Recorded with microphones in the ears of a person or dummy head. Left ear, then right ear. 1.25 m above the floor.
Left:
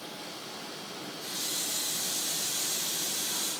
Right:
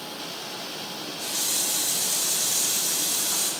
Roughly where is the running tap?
Centre.